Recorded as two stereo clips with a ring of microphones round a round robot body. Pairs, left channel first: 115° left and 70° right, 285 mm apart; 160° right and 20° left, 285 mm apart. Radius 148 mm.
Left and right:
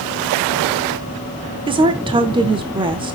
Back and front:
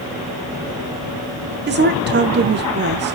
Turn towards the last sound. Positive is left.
turn(degrees=-5)